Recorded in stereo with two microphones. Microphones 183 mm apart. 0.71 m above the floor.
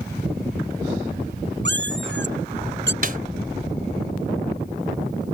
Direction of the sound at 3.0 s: 50° right (ahead or behind).